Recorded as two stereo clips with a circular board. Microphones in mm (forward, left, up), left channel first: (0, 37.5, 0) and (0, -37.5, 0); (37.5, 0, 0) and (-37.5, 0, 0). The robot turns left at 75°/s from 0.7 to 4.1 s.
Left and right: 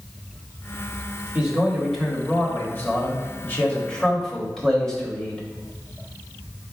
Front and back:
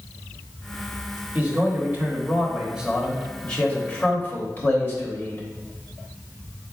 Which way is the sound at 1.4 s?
140° right.